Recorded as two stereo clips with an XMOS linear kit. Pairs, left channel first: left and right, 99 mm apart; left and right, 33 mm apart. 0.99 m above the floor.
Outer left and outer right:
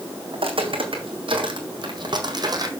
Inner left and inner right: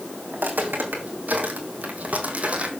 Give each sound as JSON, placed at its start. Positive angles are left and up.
{"t": 0.3, "sound": "footsteps", "side_deg": -65, "distance_m": 2.5}